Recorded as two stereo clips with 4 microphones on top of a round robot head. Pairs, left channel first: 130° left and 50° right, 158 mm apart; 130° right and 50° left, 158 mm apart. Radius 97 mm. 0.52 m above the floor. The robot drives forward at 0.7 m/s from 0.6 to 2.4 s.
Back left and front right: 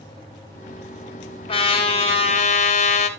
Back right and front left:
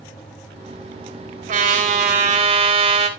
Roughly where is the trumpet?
Left.